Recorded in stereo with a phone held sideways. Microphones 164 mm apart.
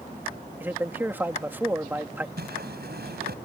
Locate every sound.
0.6 s a man speaking: 10° right (ahead or behind)
2.4 s a whoosh: 80° right